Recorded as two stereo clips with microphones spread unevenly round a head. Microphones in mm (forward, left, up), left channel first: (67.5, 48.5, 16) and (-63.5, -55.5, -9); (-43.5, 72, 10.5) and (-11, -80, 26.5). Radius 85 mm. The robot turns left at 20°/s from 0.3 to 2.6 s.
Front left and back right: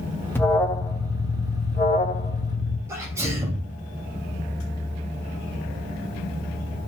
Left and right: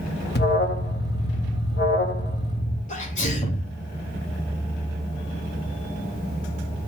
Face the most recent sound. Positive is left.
turn(degrees=145)